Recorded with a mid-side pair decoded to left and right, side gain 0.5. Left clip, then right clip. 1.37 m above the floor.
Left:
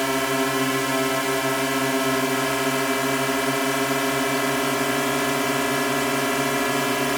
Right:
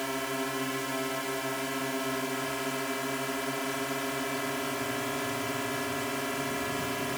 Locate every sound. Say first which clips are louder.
0.0 s a drone: left 10 dB; 60° left